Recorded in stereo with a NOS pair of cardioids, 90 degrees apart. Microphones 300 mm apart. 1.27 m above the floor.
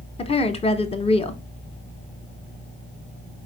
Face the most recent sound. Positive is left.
turn(degrees=20)